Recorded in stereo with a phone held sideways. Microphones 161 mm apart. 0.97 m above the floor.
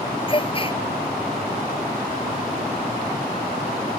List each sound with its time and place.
0.3 s a gasp: 35° left (ahead or behind)